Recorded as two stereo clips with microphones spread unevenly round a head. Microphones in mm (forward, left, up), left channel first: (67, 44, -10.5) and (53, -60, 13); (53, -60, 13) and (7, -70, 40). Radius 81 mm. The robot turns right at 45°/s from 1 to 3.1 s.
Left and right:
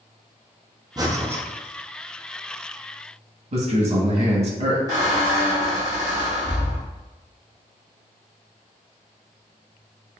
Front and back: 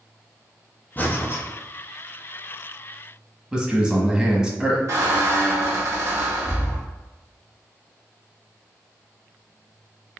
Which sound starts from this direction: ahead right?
Breathing, at 1.0 s.